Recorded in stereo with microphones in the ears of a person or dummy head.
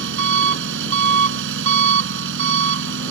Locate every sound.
0.0 s an engine running: 75° right (ahead or behind)